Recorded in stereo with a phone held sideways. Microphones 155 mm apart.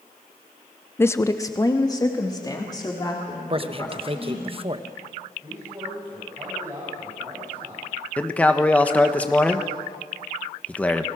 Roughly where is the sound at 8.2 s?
Centre.